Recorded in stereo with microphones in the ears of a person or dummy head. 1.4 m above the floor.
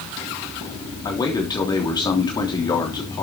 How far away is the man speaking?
About 3 m.